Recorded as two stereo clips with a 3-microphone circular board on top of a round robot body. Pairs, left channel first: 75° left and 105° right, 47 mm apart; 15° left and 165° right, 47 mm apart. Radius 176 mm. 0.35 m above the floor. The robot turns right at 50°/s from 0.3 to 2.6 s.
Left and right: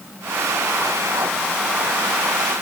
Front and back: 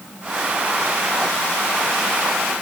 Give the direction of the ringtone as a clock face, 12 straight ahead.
No ringtone in this recording.